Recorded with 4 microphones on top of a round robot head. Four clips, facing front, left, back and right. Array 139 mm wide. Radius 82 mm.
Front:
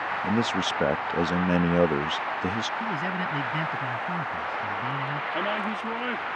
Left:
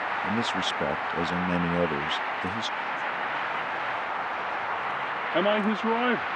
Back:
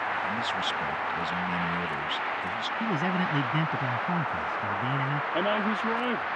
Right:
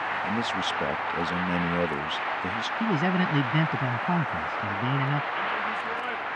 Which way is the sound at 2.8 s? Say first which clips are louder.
Right 5 dB, back 1 dB; 100° right.